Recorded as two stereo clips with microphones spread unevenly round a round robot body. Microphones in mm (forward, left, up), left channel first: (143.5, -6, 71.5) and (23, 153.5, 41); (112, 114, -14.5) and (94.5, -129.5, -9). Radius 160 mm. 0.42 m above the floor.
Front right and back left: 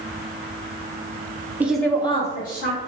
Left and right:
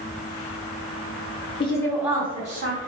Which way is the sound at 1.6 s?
85° left.